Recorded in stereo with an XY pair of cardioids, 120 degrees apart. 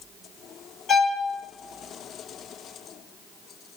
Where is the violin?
40° left, 1.9 m.